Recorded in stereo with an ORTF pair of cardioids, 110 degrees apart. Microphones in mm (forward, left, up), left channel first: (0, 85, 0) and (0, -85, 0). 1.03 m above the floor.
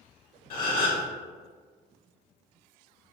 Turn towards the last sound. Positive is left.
turn(degrees=60)